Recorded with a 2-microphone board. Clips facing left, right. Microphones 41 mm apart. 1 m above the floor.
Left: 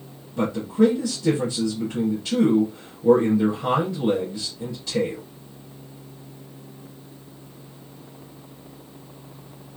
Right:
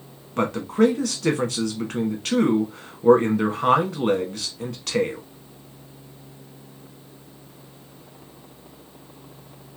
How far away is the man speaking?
About 1.1 m.